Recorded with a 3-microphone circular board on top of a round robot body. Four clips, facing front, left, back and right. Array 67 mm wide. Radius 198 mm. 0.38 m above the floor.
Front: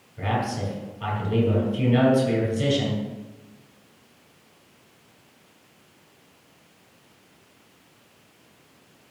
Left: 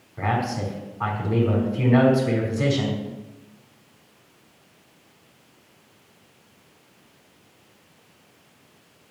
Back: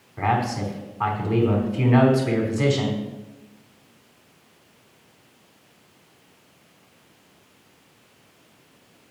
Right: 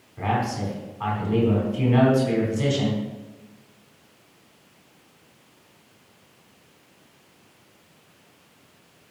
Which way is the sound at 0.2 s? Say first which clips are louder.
Even, back 4 dB; 175° left.